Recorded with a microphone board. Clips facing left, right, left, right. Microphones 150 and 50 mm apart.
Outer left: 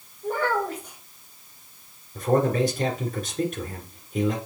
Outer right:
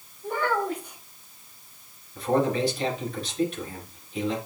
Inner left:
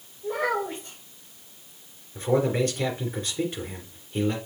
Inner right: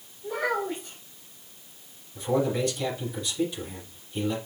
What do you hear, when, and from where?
0.2 s a child speaking: 40° left (ahead or behind), 4.5 m
2.1 s a man speaking: 45° left (ahead or behind), 3 m